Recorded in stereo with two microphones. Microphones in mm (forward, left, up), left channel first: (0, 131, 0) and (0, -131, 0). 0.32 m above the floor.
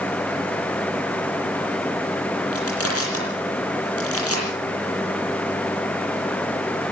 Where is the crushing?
60° left (ahead or behind), 9.5 m.